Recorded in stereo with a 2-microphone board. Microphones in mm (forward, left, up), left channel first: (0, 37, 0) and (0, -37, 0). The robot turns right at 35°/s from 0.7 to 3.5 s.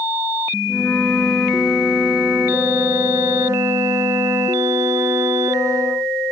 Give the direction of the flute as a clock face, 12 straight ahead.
7 o'clock.